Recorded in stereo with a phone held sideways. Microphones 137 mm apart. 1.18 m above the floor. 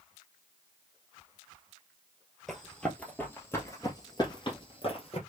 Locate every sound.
2.5 s running footsteps: centre (ahead or behind), 1.8 m; by 5.2 s 45° left (ahead or behind), 1.8 m